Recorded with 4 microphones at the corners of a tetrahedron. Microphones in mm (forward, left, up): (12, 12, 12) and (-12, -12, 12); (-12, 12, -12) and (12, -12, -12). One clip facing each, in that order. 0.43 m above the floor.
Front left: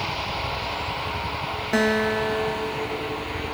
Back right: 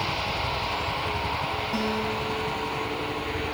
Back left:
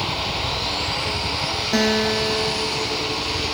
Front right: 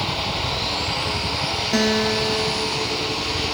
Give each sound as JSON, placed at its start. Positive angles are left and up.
{"t": 0.0, "sound": "a helicopter", "azimuth_deg": -30}
{"t": 1.7, "sound": "a guitar", "azimuth_deg": 50}